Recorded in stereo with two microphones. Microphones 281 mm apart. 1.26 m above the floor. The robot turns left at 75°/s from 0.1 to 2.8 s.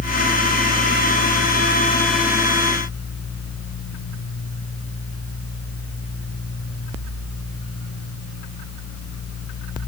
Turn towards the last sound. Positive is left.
No sound to turn to.